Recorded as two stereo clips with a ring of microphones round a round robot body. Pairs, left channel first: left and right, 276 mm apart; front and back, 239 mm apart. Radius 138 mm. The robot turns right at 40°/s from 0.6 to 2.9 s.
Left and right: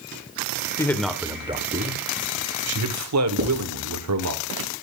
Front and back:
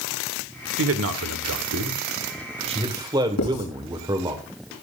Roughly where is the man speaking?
Behind.